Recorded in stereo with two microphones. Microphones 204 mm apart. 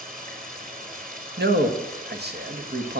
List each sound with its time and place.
0.0 s running water: 45° right (ahead or behind), 2.5 m
1.4 s a man speaking: 55° right (ahead or behind), 1.2 m